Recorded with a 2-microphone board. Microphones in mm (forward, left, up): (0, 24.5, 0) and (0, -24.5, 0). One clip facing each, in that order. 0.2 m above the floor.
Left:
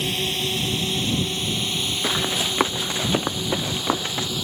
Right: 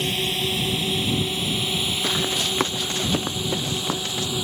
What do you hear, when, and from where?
0.0 s a drone: 5° right (ahead or behind); by 4.5 s 15° right (ahead or behind)
2.0 s running footsteps: 15° left (ahead or behind); by 4.3 s 30° left (ahead or behind)